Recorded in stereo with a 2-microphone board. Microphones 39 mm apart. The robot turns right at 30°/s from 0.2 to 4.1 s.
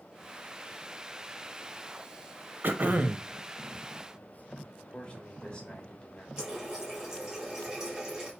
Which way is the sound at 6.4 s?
15° right (ahead or behind).